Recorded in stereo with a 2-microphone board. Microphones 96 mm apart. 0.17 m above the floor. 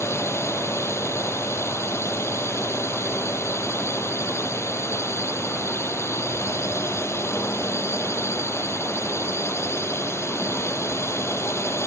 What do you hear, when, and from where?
0.0 s a drone: 30° left (ahead or behind)